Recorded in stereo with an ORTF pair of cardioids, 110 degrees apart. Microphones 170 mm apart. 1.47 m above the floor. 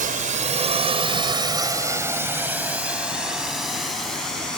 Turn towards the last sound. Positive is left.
turn(degrees=5)